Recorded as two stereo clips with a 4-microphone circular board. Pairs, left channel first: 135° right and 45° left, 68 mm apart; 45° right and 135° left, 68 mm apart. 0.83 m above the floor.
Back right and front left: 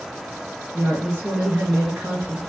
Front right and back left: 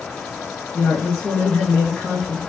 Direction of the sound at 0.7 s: 15° left.